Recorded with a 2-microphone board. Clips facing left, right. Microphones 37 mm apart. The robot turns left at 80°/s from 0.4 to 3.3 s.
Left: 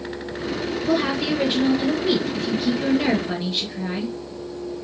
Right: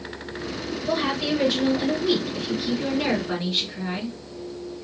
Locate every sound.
0.9 s a woman speaking: 160° right, 1.8 m; by 4.2 s 5° left, 1.8 m